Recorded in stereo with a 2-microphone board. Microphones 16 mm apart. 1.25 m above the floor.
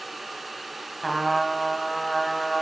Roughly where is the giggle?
I don't hear a giggle.